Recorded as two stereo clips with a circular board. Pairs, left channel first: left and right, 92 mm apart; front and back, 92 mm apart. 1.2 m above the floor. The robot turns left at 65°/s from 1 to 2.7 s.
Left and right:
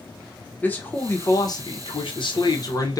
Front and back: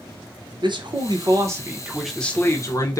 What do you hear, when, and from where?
0.6 s a man speaking: 160° left, 1.2 m; by 3.0 s 50° left, 1.2 m